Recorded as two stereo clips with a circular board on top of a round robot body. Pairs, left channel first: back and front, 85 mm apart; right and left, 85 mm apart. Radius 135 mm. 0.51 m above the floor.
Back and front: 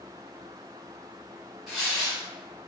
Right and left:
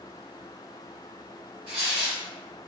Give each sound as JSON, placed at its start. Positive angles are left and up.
{"t": 1.7, "sound": "tearing paper", "azimuth_deg": 85, "distance_m": 0.5}